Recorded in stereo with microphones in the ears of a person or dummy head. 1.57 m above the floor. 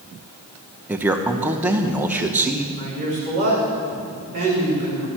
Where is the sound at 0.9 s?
10° right (ahead or behind), 0.9 m.